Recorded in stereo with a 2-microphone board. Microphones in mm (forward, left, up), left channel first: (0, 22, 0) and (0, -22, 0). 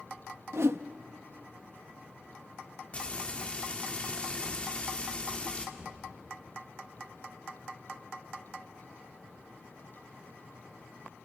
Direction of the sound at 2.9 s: 30° left (ahead or behind).